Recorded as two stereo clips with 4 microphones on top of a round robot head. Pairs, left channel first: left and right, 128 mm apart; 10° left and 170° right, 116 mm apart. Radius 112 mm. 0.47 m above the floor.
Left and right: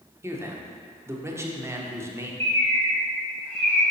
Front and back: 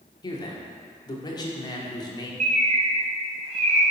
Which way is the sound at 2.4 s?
165° left.